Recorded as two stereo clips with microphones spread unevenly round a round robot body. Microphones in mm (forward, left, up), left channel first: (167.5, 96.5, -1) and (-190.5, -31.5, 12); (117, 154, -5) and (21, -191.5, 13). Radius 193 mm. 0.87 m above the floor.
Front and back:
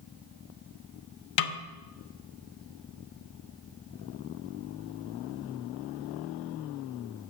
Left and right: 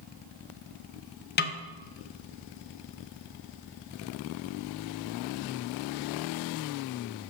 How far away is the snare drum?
About 0.5 m.